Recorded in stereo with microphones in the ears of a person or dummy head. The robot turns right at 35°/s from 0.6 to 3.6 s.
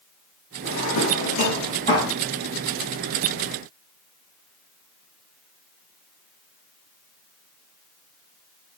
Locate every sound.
0.7 s a drawer: 65° left (ahead or behind), 5.5 m; by 2.2 s 15° left (ahead or behind), 5.5 m